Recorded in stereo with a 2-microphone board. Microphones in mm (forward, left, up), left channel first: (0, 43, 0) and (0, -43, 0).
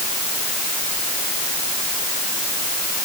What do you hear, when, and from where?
Only background noise.